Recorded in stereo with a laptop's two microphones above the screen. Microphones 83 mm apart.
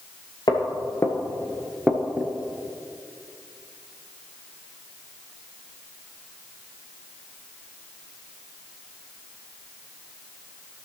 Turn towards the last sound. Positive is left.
turn(degrees=-25)  # may be behind; listen again after turning